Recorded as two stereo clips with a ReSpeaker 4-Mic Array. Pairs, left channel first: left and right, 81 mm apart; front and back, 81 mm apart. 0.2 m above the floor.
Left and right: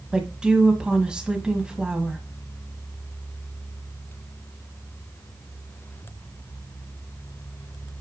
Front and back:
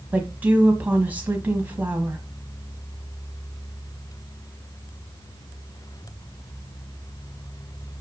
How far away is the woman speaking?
About 1.5 m.